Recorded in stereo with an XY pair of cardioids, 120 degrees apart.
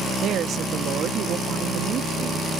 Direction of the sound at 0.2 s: 60° right.